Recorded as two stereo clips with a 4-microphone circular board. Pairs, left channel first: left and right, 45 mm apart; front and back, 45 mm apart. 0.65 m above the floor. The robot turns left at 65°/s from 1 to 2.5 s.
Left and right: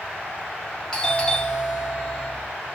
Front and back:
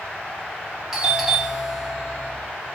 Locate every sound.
0.9 s a doorbell: 125° left, 0.9 m; by 2.3 s 40° left, 0.9 m